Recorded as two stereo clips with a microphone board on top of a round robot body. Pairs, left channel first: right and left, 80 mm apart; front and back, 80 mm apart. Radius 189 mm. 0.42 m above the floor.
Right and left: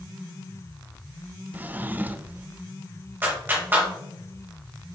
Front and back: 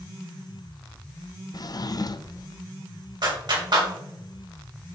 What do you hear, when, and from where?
1.5 s a drawer: 25° left, 0.6 m
3.2 s a clap: 155° left, 2.5 m